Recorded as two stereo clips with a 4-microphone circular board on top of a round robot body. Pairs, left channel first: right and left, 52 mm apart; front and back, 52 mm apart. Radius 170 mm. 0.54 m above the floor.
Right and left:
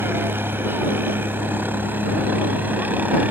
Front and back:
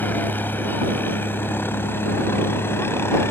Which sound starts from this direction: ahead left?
A helicopter, at 0.0 s.